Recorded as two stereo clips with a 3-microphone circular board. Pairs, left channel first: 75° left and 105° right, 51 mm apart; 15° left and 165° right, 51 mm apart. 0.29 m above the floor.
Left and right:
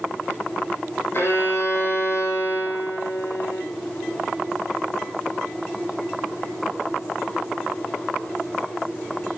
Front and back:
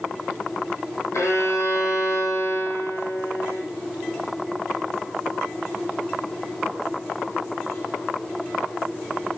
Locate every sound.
1.1 s a violin: 40° left, 8.5 m